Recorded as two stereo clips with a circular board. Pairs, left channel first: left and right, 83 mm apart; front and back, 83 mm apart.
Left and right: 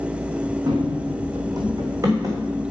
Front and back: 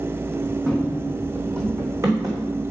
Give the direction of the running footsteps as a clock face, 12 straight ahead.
3 o'clock.